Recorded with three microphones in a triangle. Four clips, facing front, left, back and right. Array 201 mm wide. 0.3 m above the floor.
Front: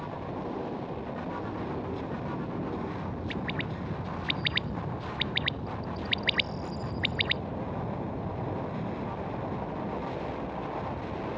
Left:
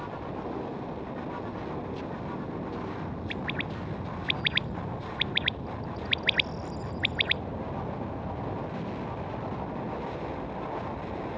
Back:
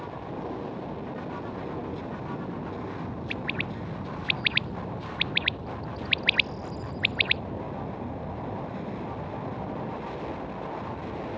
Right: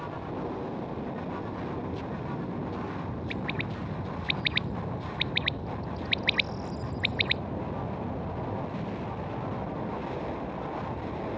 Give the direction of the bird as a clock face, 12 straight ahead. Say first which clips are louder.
Right 1 dB, even; 7 o'clock.